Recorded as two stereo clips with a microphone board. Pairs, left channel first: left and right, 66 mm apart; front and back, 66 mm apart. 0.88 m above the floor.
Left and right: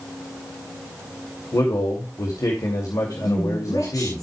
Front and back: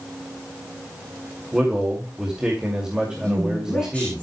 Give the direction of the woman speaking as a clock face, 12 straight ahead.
10 o'clock.